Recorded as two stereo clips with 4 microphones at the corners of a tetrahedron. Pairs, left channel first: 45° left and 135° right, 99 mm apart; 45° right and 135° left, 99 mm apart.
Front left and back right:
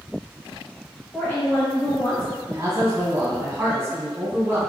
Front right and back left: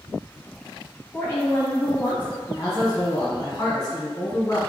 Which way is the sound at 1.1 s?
5° right.